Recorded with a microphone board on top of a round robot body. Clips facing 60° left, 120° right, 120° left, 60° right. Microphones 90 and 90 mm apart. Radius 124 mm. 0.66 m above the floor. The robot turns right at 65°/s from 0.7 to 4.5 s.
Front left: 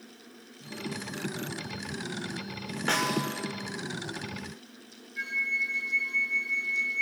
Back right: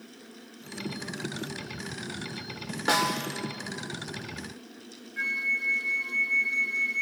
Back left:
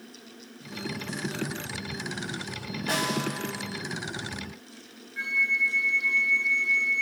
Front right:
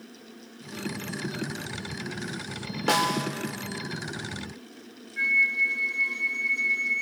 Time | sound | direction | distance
2.9 | a snare drum | 45° right | 1.5 m
5.2 | a flute | 175° right | 2.0 m